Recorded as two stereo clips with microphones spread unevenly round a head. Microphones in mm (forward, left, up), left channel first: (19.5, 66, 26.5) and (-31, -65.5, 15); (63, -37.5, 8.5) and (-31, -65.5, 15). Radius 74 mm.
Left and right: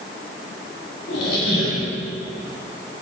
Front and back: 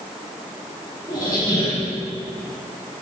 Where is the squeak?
80° left, 1.8 m.